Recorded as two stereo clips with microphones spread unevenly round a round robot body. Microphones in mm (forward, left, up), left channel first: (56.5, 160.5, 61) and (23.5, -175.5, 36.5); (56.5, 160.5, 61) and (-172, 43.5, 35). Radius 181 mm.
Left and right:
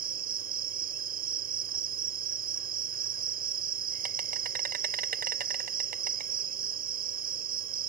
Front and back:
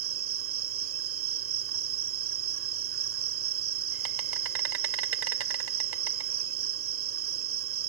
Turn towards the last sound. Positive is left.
turn(degrees=-155)